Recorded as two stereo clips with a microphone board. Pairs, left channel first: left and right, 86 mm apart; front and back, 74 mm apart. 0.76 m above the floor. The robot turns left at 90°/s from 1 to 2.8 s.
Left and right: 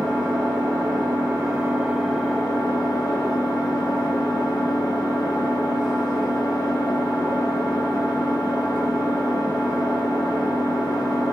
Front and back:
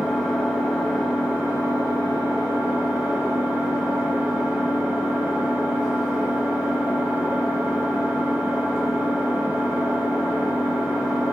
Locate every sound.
0.0 s an engine running: 85° right, 1.4 m; by 11.3 s 110° left, 1.4 m